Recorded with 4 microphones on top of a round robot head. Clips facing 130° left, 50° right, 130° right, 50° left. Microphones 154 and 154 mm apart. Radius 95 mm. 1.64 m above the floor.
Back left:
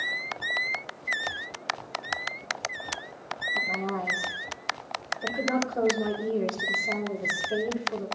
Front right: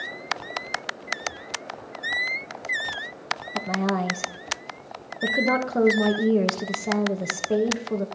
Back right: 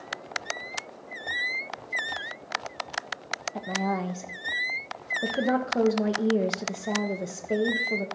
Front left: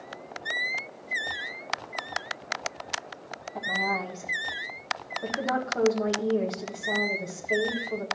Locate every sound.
3.5 s a woman speaking: 65° right, 1.3 m